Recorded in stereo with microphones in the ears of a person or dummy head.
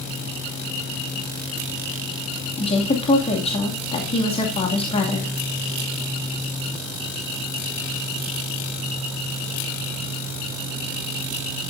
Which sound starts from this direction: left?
A woman speaking, at 2.6 s.